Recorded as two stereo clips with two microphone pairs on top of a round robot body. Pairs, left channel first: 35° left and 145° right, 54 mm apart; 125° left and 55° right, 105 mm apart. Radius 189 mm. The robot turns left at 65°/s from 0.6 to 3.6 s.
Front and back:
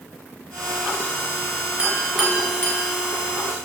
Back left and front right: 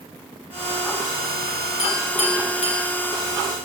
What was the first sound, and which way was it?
A clink, 155° left.